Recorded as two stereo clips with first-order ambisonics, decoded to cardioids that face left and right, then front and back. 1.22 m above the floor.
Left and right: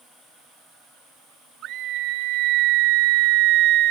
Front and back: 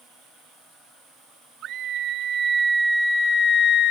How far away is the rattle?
No rattle in this recording.